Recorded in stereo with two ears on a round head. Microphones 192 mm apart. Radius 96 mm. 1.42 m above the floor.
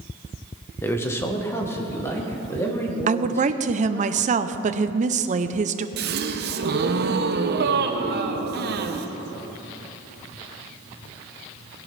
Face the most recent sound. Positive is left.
turn(degrees=-50)  # may be behind; listen again after turning